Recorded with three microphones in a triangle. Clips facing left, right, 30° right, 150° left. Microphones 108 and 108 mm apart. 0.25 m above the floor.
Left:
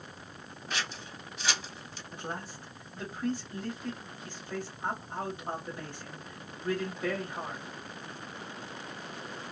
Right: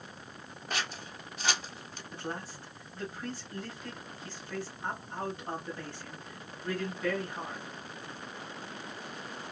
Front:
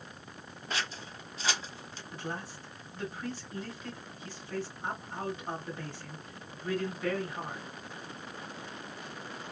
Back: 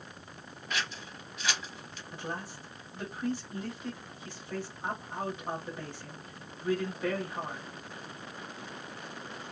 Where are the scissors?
75° right, 0.7 m.